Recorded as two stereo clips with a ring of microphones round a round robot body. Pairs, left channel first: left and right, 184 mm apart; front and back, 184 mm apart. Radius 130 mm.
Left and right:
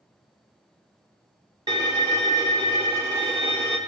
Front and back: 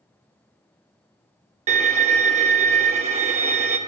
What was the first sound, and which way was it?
A violin, 150° right.